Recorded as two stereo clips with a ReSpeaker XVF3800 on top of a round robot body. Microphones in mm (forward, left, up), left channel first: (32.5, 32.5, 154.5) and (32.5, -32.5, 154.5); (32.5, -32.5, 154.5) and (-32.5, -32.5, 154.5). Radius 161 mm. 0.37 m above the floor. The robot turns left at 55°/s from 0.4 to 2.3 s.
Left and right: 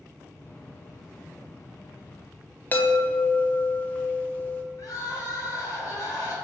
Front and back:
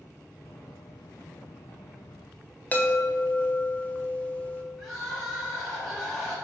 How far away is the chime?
About 0.8 m.